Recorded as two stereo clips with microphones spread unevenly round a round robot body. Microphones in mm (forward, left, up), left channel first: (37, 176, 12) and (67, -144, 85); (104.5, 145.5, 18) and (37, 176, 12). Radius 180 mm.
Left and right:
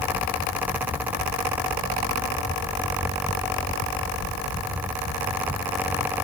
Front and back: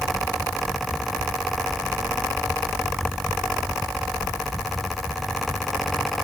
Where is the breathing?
I don't hear breathing.